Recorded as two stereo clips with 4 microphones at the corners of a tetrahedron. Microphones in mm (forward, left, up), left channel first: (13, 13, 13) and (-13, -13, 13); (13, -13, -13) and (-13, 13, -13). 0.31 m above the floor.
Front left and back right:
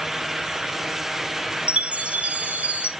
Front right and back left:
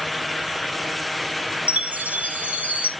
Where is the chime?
175° left, 1.3 m.